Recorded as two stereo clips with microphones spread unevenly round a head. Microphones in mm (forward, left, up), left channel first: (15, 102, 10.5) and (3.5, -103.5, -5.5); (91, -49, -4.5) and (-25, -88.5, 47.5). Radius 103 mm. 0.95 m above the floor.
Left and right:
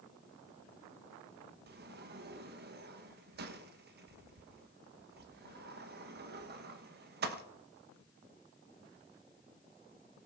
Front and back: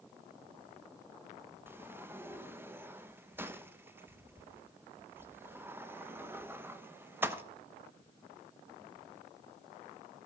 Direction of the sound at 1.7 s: 75° right.